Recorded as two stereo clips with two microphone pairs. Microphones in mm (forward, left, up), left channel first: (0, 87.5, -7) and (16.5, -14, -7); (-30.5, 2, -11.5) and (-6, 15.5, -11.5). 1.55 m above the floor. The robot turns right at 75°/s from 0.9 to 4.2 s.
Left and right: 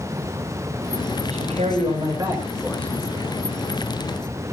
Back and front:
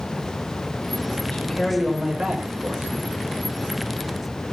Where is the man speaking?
100° right, 6 m; by 2.9 s 25° left, 6 m.